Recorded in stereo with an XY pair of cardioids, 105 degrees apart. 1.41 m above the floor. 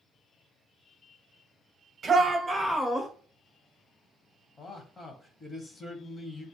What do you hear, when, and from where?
2.0 s a shout: 45° right, 0.8 m; by 3.1 s 30° left, 0.8 m
4.6 s a man speaking: 30° left, 0.9 m